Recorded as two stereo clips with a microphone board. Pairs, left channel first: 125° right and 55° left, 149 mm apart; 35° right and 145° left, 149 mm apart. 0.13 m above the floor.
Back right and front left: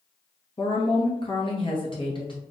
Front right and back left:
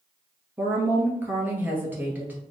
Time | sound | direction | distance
0.6 | a woman speaking | 145° right | 1.5 m